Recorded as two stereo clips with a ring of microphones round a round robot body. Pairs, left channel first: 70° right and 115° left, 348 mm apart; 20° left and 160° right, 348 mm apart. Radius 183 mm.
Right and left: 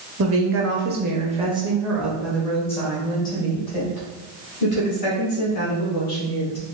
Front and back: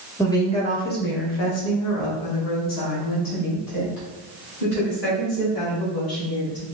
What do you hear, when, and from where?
0.2 s a woman speaking: 100° left, 1.2 m; by 6.7 s 5° right, 3.5 m